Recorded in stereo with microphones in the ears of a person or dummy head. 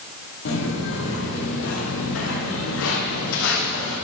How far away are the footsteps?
About 3 m.